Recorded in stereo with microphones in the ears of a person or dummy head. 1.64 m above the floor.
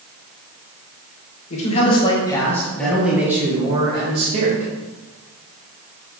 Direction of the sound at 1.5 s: 35° left (ahead or behind).